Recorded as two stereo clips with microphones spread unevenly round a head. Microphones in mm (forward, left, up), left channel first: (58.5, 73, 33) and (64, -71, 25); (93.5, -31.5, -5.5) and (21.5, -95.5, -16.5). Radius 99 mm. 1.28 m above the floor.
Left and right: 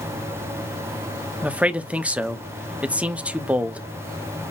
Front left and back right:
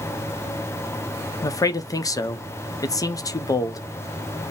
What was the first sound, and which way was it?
A man speaking, 10° right.